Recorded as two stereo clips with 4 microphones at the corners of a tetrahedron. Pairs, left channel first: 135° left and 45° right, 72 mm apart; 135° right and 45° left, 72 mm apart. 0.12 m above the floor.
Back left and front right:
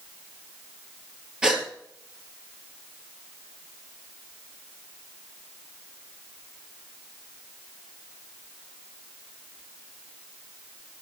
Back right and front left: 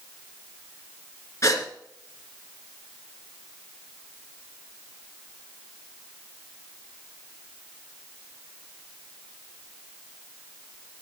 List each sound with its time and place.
1.4 s a gasp: 120° right, 1.7 m